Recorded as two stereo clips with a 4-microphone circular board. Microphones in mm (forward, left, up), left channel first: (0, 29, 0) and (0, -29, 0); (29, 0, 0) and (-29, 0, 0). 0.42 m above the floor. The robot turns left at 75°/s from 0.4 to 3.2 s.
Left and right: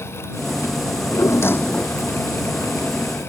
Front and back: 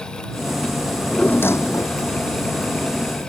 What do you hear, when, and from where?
0.9 s a drawer: 90° left; by 2.0 s 5° left